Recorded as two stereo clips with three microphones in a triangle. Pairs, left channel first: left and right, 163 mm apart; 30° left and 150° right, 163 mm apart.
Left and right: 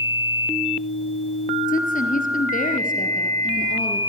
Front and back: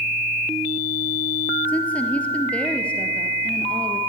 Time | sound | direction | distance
1.7 | a woman speaking | 110° left | 2.5 m